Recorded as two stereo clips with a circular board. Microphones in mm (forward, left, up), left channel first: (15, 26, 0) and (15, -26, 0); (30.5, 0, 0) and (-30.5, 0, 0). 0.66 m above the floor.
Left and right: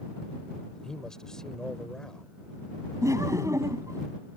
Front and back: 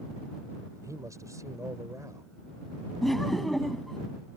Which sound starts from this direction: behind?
A man speaking, at 0.8 s.